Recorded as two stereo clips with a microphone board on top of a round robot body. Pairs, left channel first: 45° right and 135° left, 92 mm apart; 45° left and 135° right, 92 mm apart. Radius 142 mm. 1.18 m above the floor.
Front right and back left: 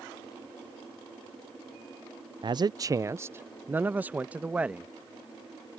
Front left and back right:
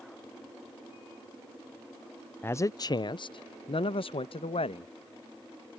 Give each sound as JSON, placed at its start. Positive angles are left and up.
{"t": 2.4, "sound": "a man speaking", "azimuth_deg": 110}